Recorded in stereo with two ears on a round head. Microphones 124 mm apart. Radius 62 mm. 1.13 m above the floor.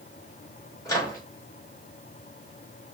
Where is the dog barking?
I don't hear a dog barking.